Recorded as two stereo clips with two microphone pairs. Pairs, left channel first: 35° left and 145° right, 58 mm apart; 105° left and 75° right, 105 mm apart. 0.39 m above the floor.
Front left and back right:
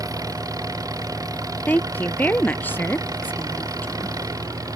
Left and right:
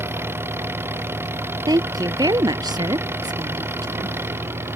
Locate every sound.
0.0 s an engine running: 140° right
1.7 s a woman speaking: 25° right